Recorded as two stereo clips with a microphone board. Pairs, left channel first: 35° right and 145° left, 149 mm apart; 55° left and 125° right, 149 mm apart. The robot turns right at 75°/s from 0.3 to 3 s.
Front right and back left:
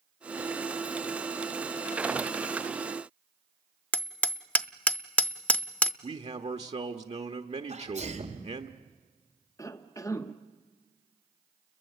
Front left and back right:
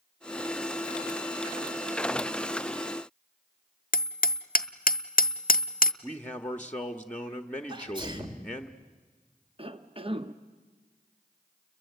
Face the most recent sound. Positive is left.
turn(degrees=-95)